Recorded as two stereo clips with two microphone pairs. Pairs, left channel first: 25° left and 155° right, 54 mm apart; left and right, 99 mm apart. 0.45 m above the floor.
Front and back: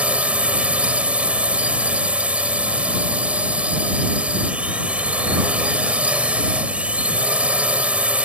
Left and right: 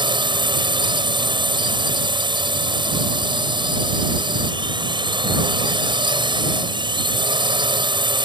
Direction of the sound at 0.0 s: 95° right.